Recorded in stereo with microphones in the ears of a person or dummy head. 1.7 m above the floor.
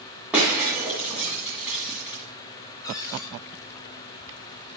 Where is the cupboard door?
15° left (ahead or behind), 4 m.